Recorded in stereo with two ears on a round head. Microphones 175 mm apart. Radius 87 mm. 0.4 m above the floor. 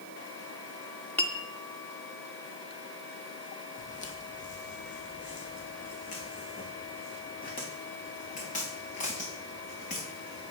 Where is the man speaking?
No man speaking in this recording.